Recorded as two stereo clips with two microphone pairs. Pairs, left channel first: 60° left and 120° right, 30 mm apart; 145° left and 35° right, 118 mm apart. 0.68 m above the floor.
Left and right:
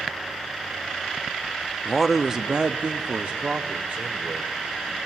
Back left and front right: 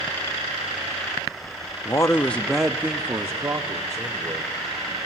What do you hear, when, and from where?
1.9 s a man speaking: 135° left, 0.7 m; by 5.0 s 95° right, 2.5 m